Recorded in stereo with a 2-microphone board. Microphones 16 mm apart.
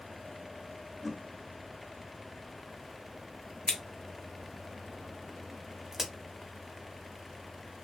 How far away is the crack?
About 0.7 m.